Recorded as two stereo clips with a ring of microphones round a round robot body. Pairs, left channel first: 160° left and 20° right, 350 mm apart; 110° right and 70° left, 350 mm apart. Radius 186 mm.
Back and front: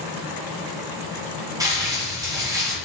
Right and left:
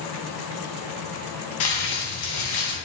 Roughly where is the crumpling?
Right.